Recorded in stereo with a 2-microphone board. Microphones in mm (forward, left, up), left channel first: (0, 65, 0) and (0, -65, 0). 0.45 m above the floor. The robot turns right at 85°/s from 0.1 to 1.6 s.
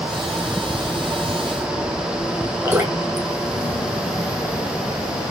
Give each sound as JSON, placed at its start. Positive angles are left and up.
{"t": 2.6, "sound": "dripping", "side_deg": -20, "distance_m": 6.0}